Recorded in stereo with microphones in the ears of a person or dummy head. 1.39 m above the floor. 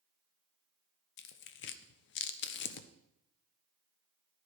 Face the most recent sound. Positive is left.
turn(degrees=60)  # may be behind; listen again after turning